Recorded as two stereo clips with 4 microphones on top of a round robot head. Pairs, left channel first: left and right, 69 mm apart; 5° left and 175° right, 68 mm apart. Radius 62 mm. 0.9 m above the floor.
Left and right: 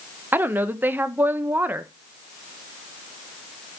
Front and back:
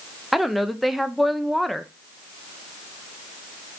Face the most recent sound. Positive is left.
turn(degrees=-85)